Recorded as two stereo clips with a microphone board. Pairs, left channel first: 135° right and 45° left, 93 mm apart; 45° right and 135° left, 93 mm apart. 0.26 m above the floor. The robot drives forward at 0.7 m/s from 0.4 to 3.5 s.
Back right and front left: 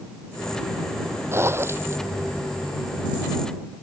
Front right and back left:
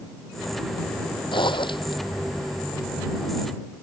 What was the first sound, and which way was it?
A zipper, 15° right.